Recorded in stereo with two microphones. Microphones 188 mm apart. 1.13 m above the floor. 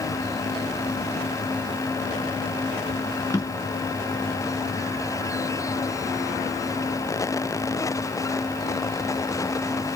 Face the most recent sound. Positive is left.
turn(degrees=15)  # may be behind; listen again after turning